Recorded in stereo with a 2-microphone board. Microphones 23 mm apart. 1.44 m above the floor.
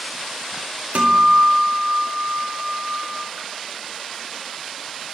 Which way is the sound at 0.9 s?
65° right (ahead or behind).